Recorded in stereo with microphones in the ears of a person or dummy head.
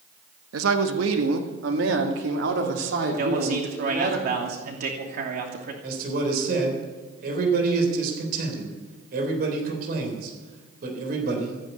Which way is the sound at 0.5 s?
80° right.